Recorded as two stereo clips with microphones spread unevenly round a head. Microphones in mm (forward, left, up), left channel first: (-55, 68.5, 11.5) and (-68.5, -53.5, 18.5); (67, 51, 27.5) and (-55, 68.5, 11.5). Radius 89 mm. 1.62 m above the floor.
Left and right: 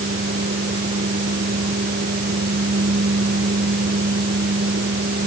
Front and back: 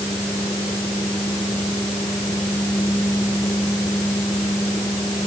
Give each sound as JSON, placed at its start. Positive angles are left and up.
{"t": 0.0, "sound": "a fan", "azimuth_deg": -85}